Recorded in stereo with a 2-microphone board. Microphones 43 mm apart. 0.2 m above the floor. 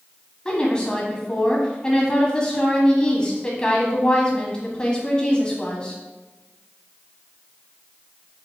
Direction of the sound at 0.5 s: 20° left (ahead or behind).